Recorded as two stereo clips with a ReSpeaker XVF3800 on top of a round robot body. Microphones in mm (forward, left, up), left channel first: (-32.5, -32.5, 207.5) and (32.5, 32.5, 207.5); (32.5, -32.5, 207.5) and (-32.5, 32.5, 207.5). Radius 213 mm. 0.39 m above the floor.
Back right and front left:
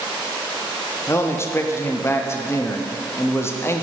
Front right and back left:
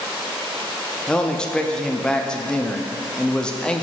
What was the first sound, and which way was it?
A man speaking, 115° right.